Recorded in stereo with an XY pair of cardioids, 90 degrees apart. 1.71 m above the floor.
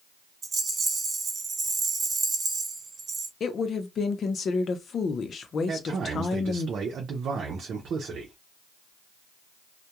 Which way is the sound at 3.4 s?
55° left.